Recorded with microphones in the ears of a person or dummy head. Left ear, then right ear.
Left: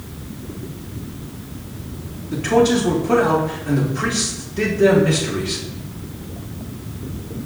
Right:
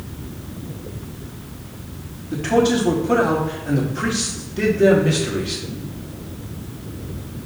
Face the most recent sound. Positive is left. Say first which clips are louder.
# left 2 dB
turn(degrees=-5)  # may be behind; listen again after turning